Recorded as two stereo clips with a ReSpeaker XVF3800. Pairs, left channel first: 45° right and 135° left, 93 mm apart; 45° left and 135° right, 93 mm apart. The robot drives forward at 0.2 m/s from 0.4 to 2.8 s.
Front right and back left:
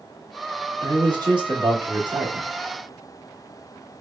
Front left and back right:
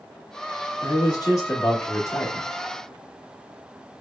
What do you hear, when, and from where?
0.8 s a man speaking: 90° left, 1.4 m; by 2.5 s 105° left, 1.4 m